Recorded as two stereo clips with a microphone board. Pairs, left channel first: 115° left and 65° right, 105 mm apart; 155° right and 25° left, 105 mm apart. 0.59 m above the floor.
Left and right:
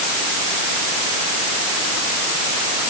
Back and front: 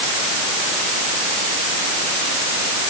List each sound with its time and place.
Only background noise.